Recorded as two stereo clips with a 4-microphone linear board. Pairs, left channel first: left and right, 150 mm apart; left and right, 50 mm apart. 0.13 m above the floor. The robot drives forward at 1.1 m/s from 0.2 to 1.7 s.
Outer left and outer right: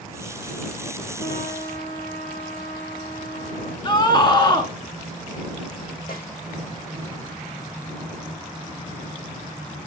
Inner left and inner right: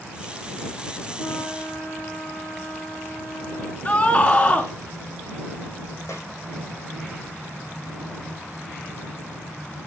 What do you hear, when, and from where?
1.2 s a trumpet: 70° left (ahead or behind), 2.5 m
3.9 s a scream: 30° left (ahead or behind), 1.4 m
6.1 s a snare drum: 80° left, 6 m